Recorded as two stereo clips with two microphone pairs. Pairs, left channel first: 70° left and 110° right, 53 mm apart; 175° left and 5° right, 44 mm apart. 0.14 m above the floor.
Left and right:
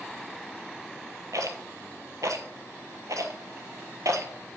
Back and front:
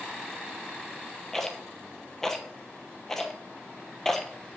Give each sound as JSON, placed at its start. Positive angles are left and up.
{"t": 1.3, "sound": "a rattle", "azimuth_deg": -110, "distance_m": 0.9}